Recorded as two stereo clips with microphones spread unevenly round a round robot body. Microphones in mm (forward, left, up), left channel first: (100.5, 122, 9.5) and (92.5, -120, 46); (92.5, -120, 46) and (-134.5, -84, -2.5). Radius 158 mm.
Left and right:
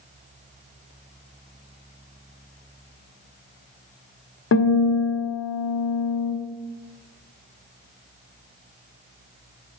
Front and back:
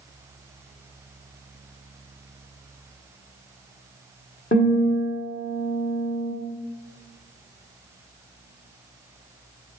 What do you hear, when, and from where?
4.5 s a guitar: 55° left, 1.4 m